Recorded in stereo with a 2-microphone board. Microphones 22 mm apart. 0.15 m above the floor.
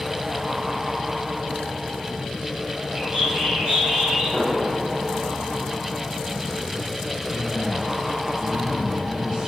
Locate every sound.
3.0 s a bird: 60° right (ahead or behind), 6 m
4.3 s an explosion: 40° right (ahead or behind), 6 m
7.3 s a man speaking: 40° right (ahead or behind), 2.5 m